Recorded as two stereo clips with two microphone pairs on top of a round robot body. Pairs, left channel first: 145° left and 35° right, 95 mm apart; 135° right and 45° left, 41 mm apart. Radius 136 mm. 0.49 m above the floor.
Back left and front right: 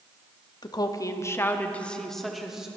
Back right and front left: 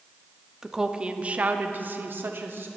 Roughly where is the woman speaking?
Behind left.